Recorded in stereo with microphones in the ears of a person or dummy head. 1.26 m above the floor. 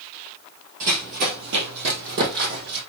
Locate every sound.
0.8 s running footsteps: 45° right (ahead or behind), 1.7 m; by 2.8 s 50° right (ahead or behind), 3.5 m